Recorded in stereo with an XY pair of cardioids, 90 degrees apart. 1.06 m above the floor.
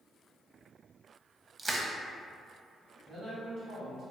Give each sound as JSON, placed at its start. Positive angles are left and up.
{"t": 1.6, "sound": "crushing", "azimuth_deg": -30, "distance_m": 0.6}
{"t": 3.1, "sound": "a man speaking", "azimuth_deg": -70, "distance_m": 1.7}